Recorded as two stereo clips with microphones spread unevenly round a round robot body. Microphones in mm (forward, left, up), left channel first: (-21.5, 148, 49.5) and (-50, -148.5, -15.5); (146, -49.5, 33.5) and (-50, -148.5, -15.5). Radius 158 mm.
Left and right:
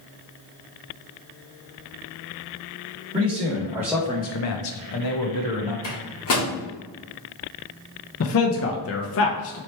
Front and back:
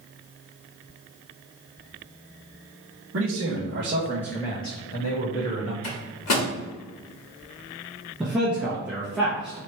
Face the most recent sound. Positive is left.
turn(degrees=130)